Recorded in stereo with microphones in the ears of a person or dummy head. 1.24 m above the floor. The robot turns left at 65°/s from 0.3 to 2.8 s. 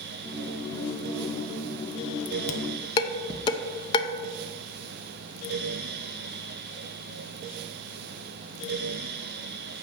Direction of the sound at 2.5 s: 40° left (ahead or behind).